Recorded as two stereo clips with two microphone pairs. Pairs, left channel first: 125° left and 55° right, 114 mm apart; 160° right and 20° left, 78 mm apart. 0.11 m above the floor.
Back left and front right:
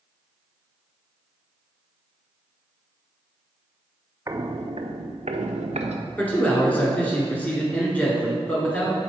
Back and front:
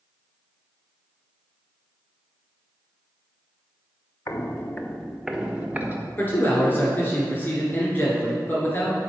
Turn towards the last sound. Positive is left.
turn(degrees=-175)